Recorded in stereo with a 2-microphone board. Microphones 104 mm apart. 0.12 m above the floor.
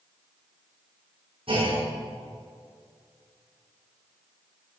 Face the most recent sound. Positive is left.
turn(degrees=-60)  # may be behind; listen again after turning